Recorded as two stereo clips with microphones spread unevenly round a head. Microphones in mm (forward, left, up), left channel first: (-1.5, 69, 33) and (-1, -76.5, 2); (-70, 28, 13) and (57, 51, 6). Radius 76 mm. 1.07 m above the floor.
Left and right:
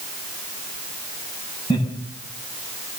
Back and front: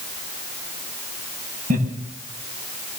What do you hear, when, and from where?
1.7 s laughter: 30° left, 7 m